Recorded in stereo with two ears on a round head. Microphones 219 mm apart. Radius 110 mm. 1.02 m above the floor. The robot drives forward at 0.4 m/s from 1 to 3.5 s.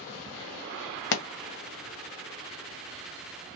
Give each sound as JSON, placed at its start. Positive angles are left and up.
{"t": 1.1, "sound": "a pop", "side_deg": 50, "distance_m": 1.0}